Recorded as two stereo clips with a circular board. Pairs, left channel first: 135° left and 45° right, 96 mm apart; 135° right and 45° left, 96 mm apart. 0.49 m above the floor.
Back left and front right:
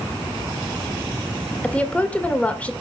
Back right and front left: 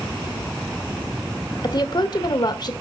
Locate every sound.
1.6 s a woman speaking: 150° right, 1.6 m